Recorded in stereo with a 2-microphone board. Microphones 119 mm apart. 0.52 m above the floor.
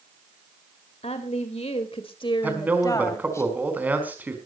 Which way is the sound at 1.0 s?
60° left (ahead or behind).